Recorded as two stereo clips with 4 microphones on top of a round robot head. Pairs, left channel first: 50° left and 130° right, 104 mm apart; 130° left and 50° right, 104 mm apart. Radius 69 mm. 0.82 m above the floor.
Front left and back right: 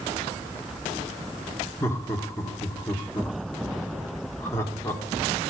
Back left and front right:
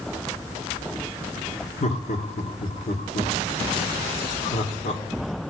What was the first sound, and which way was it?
Laughter, 115° left.